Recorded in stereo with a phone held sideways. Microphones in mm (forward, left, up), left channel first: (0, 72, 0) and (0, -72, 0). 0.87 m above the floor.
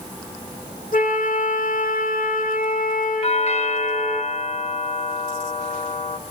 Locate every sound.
0.9 s a flute: 75° left (ahead or behind), 3.5 m
3.2 s a doorbell: 45° left (ahead or behind), 2 m